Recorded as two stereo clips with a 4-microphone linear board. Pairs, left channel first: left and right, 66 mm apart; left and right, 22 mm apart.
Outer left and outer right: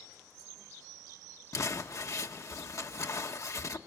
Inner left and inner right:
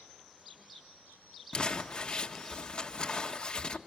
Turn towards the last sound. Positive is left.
turn(degrees=50)  # may be behind; listen again after turning